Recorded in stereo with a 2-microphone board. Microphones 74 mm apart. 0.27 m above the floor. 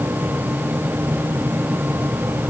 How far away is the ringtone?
I don't hear a ringtone.